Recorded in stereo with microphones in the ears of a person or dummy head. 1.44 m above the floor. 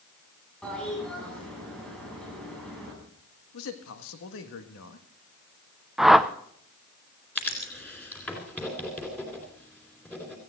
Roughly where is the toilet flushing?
Centre.